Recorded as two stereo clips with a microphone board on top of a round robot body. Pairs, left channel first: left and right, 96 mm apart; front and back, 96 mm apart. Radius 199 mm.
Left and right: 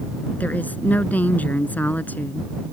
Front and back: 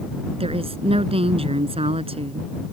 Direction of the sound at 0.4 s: 165° left.